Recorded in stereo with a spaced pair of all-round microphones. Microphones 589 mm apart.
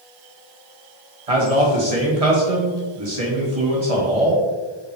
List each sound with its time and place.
1.3 s a man speaking: 75° right (ahead or behind), 1.4 m